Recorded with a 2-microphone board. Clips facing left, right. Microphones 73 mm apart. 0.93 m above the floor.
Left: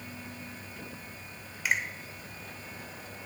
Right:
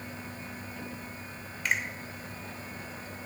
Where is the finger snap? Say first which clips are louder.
Left 1 dB; 5° left (ahead or behind), 2 m.